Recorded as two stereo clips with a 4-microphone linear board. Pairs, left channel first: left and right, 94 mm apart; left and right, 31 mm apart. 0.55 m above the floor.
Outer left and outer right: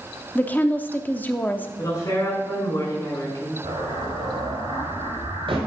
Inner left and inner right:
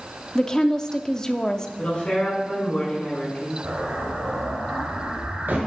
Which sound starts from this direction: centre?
A woman speaking, at 0.3 s.